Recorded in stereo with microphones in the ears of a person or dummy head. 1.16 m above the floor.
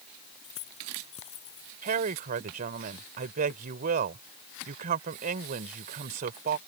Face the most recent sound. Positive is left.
turn(degrees=-50)  # may be behind; listen again after turning